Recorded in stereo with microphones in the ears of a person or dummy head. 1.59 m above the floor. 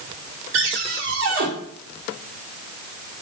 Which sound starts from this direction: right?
A cupboard door, at 0.5 s.